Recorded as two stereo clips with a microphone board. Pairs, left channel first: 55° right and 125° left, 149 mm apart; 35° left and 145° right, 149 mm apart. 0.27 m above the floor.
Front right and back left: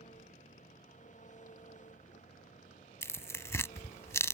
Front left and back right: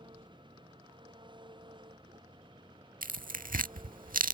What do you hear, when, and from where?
0.0 s an engine running: 90° right
3.0 s tearing paper: 125° right